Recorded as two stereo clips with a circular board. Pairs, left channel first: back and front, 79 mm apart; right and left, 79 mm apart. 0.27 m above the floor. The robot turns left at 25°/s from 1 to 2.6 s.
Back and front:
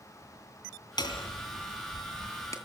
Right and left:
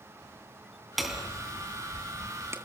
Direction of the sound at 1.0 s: Straight behind.